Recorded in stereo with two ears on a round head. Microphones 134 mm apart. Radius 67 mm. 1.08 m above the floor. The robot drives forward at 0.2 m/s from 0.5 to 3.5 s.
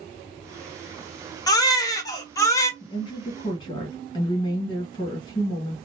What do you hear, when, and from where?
1.5 s a baby crying: 25° left (ahead or behind), 0.6 m; by 2.7 s 20° left (ahead or behind), 0.7 m
2.8 s a woman speaking: 35° left (ahead or behind), 1.3 m; by 5.8 s 30° left (ahead or behind), 1.4 m